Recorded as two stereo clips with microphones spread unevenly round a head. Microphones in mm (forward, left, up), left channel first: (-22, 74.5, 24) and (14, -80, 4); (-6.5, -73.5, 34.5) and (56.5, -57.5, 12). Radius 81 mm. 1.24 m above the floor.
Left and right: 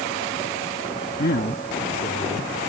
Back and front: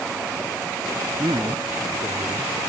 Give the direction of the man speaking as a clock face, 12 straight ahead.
10 o'clock.